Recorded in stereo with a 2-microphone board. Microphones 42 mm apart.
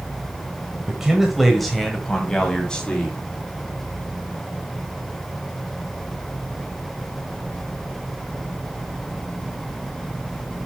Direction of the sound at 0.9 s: 15° right (ahead or behind).